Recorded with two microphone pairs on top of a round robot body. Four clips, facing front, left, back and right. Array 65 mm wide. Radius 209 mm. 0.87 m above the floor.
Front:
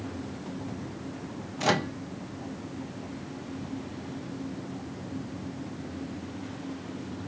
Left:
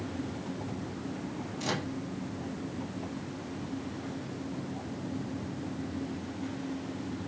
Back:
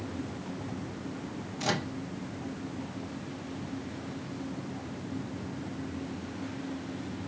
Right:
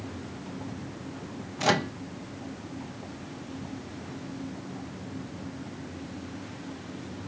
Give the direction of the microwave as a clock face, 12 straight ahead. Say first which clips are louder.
Right 9 dB, front 6 dB; 2 o'clock.